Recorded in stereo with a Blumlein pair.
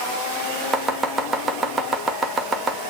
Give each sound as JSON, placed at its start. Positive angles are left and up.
{"t": 0.7, "sound": "chopping", "azimuth_deg": -15, "distance_m": 2.0}